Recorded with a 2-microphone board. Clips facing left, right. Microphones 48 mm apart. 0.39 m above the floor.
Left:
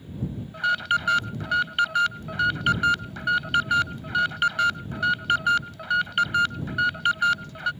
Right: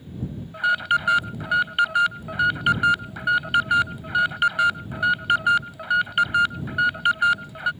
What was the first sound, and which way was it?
An alarm, 10° right (ahead or behind).